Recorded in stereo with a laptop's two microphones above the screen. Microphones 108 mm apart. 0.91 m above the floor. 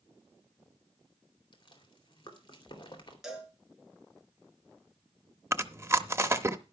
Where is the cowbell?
5° right (ahead or behind), 4.5 m.